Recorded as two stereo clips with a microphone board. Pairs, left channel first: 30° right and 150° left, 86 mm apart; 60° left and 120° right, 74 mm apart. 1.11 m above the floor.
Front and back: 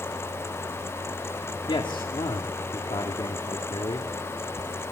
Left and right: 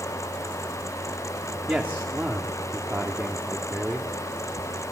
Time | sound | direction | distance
1.7 | a man speaking | 50° right | 2 m